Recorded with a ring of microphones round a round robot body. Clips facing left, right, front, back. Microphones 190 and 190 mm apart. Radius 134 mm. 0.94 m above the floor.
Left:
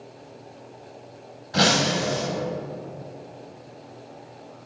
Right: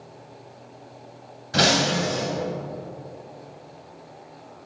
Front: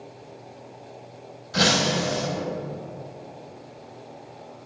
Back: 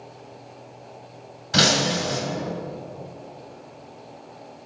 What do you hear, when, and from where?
1.5 s breaking glass: 160° right, 3.5 m